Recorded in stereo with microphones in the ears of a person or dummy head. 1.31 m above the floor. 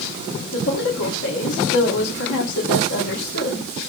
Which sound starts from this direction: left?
A woman speaking, at 0.5 s.